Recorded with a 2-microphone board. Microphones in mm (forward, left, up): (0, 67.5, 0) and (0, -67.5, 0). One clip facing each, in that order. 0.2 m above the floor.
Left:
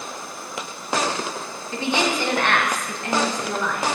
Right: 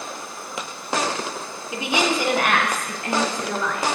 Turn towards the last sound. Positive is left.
turn(degrees=0)  # may be behind; listen again after turning